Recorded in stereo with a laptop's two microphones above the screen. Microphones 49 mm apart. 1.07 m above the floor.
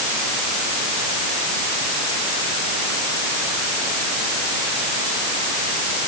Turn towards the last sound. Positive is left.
No sound to turn to.